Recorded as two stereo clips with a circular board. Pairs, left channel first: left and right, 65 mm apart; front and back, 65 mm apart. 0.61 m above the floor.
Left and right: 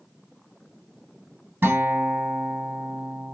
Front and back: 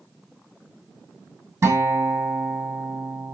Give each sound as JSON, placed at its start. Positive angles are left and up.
{"t": 1.6, "sound": "a guitar", "azimuth_deg": -145, "distance_m": 1.4}